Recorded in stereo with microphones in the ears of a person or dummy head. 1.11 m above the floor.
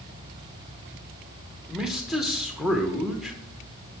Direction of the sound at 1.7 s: Centre (ahead or behind).